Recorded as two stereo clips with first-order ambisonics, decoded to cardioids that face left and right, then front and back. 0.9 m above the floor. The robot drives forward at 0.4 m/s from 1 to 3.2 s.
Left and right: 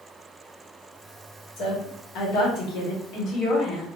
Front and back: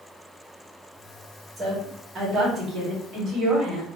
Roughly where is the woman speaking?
Left.